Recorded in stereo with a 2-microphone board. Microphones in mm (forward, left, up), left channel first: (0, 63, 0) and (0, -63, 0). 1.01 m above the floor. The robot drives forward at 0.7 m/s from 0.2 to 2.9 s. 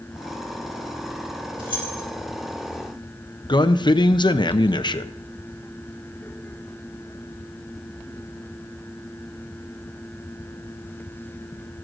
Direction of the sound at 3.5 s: 35° left (ahead or behind).